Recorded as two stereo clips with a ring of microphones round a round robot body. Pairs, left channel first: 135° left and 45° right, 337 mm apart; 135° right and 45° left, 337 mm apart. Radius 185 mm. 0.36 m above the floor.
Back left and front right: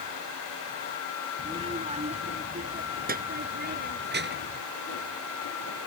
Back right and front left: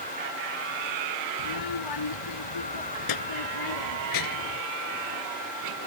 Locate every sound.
1.4 s a child speaking: 120° right; by 4.6 s 105° right